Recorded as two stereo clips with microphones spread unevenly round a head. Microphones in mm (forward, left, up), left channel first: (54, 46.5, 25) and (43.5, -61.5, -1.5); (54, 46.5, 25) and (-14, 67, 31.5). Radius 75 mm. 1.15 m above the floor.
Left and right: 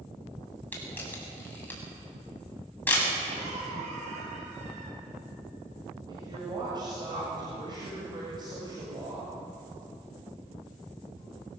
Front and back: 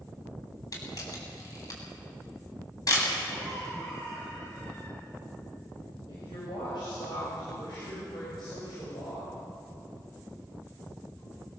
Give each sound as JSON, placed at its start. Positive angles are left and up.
{"t": 0.7, "sound": "a camera shutter", "azimuth_deg": 15, "distance_m": 8.0}
{"t": 3.3, "sound": "a cough", "azimuth_deg": -85, "distance_m": 9.0}
{"t": 6.1, "sound": "a woman speaking", "azimuth_deg": -45, "distance_m": 7.5}